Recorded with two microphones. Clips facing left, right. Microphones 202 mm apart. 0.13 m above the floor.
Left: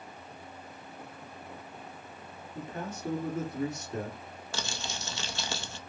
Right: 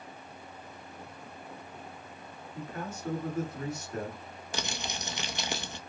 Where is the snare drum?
I don't hear a snare drum.